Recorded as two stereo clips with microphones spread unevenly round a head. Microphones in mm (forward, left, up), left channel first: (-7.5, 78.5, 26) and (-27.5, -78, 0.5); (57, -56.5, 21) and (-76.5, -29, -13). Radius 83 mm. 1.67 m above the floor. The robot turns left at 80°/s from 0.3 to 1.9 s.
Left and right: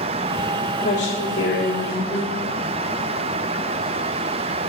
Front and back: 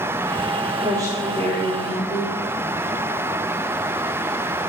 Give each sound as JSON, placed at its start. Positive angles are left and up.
{"t": 0.8, "sound": "a woman speaking", "azimuth_deg": 110, "distance_m": 3.5}